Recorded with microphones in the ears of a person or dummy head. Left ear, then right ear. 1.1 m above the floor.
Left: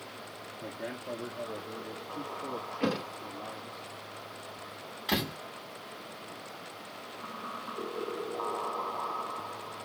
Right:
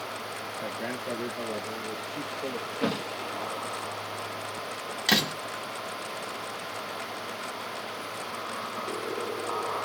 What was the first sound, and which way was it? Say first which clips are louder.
A man speaking: right 4 dB; 40° right (ahead or behind).